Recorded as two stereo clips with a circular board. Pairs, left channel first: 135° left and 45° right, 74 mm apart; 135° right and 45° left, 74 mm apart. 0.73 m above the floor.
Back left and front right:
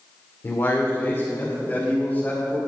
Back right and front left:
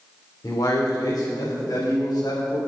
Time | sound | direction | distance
0.4 | a man speaking | 175° right | 2 m